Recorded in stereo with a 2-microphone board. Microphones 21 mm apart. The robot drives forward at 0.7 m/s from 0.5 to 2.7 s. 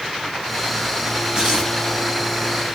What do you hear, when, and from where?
1.4 s tearing paper: 30° right (ahead or behind), 6.5 m